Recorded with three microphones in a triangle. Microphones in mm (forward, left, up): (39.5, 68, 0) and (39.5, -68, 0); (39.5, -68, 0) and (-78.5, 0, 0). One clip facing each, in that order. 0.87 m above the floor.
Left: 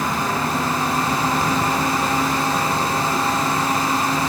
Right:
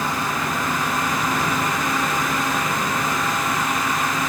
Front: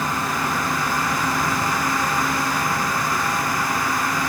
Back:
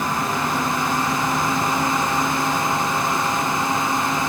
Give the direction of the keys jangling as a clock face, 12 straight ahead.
No keys jangling in this recording.